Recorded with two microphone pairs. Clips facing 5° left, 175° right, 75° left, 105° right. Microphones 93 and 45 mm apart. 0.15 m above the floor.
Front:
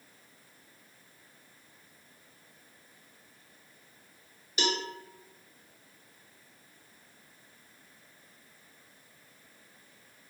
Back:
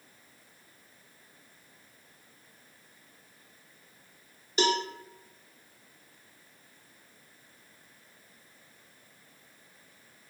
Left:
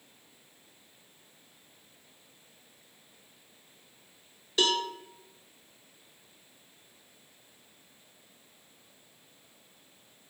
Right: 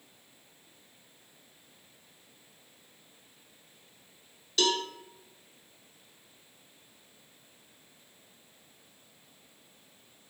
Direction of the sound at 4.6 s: 140° left.